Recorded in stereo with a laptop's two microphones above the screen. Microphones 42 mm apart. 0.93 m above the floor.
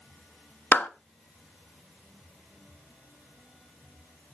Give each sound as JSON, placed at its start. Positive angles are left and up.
{"t": 0.7, "sound": "a clap", "side_deg": 45, "distance_m": 1.0}